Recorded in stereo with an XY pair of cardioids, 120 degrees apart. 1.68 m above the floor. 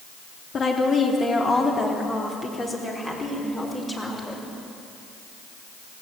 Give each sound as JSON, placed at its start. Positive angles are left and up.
{"t": 0.5, "sound": "a woman speaking", "azimuth_deg": 40, "distance_m": 3.5}